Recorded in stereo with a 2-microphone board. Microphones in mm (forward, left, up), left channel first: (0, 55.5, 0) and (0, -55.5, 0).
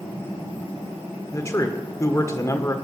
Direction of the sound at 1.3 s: 25° left (ahead or behind).